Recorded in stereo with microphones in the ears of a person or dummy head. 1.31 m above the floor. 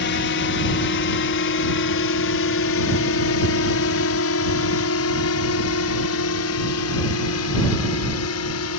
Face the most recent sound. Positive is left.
turn(degrees=75)  # may be behind; listen again after turning